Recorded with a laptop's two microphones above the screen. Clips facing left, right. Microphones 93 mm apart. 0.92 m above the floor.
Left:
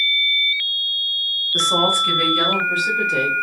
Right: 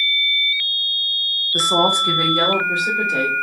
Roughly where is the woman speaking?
Centre.